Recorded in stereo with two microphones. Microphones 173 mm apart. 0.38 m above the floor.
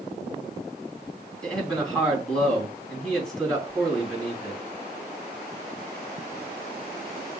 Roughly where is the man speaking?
Centre.